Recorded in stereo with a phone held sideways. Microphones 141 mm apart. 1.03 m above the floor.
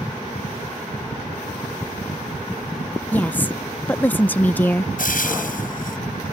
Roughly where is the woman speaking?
Centre.